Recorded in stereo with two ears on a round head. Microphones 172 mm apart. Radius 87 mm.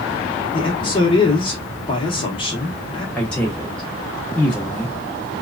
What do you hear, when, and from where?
0.5 s a man speaking: 25° left (ahead or behind), 0.8 m
3.1 s a man speaking: 5° left (ahead or behind), 0.7 m